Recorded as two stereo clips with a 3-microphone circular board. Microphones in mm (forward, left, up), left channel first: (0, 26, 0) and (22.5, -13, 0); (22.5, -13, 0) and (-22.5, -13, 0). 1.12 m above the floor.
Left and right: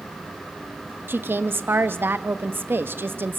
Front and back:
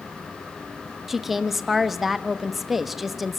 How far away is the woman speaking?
About 1.3 m.